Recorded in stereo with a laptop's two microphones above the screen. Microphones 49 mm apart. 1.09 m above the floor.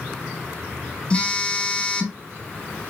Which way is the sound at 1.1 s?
25° left (ahead or behind).